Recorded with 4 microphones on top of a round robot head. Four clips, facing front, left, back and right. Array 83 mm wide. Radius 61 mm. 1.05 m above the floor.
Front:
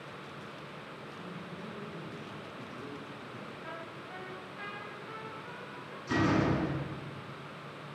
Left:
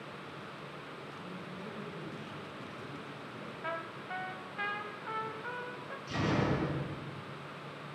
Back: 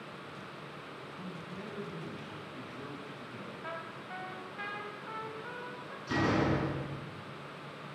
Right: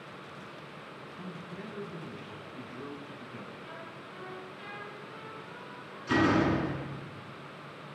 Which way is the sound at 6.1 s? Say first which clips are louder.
Right 7 dB, front 1 dB; 90° right.